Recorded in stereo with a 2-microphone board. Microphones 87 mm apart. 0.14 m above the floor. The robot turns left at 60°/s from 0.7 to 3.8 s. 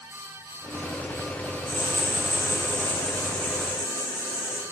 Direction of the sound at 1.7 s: 25° left (ahead or behind).